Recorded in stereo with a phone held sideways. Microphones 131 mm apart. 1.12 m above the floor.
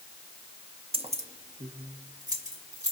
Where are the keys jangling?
50° right (ahead or behind), 0.5 m; by 2.9 s 75° right (ahead or behind), 1.9 m.